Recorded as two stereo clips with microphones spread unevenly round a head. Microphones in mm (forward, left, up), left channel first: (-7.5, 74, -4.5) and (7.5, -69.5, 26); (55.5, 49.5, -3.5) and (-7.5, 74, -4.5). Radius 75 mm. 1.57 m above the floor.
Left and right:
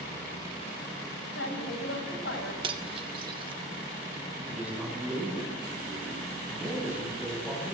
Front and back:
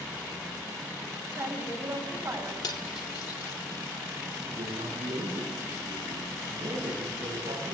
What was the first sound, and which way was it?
A woman speaking, 105° left.